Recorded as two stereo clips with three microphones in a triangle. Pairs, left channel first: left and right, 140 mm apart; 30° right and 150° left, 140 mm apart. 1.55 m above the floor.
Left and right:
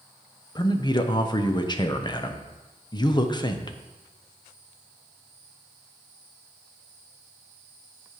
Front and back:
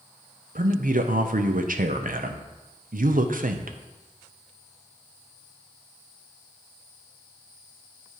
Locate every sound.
0.6 s a man speaking: 145° left, 0.7 m